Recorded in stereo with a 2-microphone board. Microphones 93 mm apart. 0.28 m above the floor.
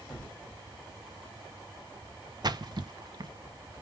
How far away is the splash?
About 0.7 m.